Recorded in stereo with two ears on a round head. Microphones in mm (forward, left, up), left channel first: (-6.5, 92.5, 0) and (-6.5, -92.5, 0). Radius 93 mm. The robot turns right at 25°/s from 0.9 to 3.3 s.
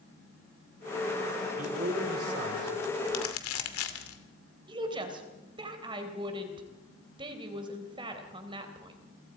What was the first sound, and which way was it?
A man speaking, 140° right.